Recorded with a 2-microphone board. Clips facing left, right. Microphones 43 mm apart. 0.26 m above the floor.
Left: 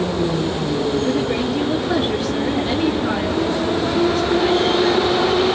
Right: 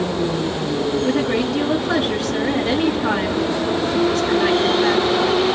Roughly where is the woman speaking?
Right.